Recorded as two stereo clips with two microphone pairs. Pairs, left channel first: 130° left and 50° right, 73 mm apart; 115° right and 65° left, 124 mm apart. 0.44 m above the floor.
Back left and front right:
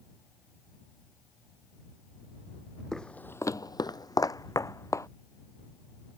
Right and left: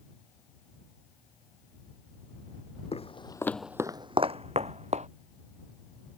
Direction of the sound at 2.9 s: 145° right.